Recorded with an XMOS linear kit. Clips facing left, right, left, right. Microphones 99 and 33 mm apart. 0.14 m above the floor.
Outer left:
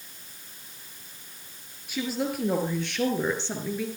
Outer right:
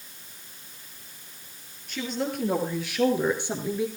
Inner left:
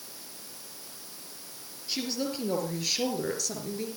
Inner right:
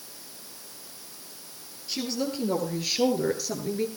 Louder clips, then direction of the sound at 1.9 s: Outer left 1 dB, inner right 2 dB; 5° left (ahead or behind).